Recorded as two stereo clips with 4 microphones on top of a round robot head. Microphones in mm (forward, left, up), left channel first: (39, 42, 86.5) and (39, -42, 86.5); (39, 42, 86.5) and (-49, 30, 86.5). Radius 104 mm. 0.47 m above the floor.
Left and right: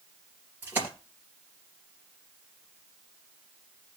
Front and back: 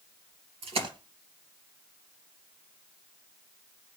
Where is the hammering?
No hammering in this recording.